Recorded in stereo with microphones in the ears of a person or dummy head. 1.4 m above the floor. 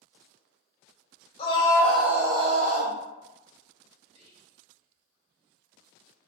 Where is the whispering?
30° right (ahead or behind), 0.5 m.